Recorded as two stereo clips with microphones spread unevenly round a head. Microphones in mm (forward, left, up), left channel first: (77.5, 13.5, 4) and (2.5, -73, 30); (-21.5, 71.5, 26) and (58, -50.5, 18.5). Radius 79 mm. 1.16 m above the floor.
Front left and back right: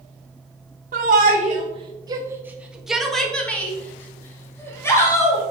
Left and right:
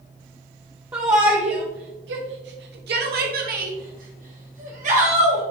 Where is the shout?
130° right, 0.9 m; by 5.4 s 15° right, 2.5 m.